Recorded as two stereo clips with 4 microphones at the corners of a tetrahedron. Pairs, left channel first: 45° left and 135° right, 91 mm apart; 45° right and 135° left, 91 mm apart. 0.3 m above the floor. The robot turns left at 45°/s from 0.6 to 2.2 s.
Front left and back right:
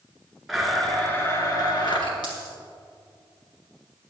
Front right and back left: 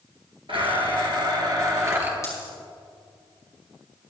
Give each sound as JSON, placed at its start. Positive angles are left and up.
{"t": 0.5, "sound": "a blender", "azimuth_deg": 135, "distance_m": 3.0}
{"t": 2.2, "sound": "a dropped coin", "azimuth_deg": 10, "distance_m": 5.5}